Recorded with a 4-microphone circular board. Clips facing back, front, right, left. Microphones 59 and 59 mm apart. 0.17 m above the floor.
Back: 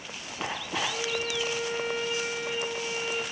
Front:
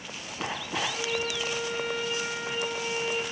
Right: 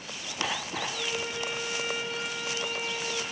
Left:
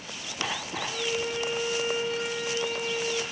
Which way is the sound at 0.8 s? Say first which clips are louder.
Front 1 dB, left 6 dB; 65° left.